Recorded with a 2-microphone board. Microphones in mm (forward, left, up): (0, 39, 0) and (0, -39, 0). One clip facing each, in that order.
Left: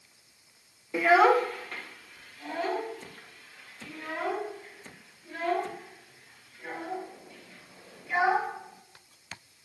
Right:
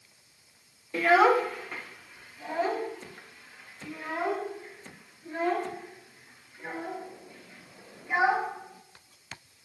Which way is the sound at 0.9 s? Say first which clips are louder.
Even; 10° left (ahead or behind).